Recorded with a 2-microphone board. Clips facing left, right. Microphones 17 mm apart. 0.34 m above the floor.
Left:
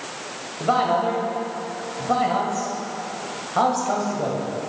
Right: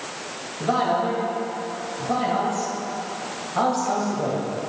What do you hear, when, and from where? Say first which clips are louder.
0.6 s a man speaking: left 2 dB; 25° left (ahead or behind), 1.4 m